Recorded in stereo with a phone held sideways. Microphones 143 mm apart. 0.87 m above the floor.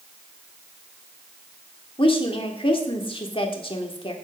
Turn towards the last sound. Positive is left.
turn(degrees=40)  # may be behind; listen again after turning